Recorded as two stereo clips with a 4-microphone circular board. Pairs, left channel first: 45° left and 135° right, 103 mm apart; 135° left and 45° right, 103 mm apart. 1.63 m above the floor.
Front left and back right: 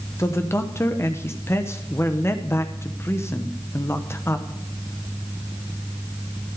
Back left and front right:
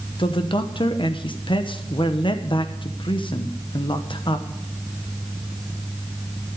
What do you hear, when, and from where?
0.2 s a man speaking: 105° left, 1.0 m